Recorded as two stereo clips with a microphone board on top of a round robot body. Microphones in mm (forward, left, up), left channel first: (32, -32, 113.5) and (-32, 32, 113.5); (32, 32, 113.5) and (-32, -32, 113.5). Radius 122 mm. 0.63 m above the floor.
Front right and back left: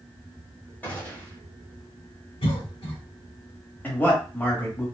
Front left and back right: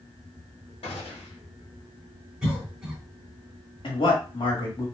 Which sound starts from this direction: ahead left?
A gunshot, at 0.8 s.